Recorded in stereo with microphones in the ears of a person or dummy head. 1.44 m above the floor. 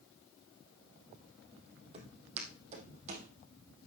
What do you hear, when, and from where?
1.9 s footsteps: 35° right (ahead or behind), 3 m; by 3.3 s 40° right (ahead or behind), 4 m